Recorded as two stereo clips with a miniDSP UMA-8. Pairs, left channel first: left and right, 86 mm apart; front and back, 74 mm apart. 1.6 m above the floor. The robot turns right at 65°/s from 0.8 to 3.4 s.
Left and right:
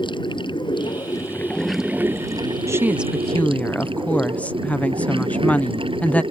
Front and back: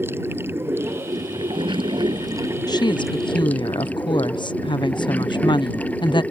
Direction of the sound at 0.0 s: 120° left.